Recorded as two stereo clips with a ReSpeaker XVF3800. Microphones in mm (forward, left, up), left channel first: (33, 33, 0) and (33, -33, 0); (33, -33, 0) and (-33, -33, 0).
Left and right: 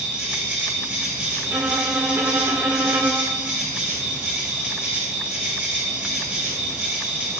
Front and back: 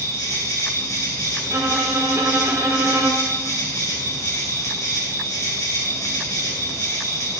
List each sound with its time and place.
0.0 s an insect: 25° right, 1.8 m
1.4 s a violin: 135° right, 1.6 m